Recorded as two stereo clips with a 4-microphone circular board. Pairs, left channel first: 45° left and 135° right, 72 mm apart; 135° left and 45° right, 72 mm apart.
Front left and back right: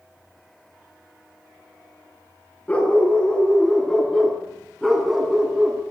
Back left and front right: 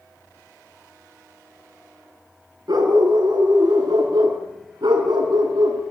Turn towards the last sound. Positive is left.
turn(degrees=-55)